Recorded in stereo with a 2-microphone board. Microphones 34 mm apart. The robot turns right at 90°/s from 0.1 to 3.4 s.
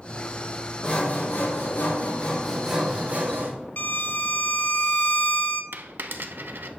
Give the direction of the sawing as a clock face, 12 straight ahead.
11 o'clock.